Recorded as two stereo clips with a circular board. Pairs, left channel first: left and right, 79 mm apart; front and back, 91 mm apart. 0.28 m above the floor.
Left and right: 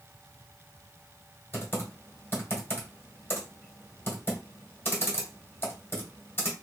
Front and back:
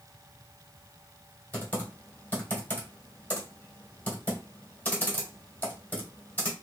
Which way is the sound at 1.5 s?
55° left.